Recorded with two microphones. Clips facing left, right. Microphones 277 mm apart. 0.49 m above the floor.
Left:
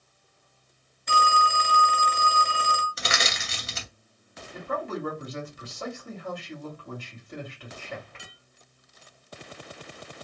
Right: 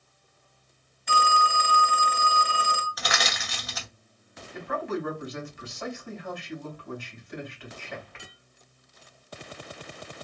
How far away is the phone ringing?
About 1.2 m.